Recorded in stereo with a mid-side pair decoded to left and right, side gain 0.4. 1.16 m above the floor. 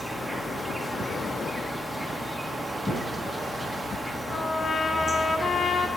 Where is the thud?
30° left, 6 m.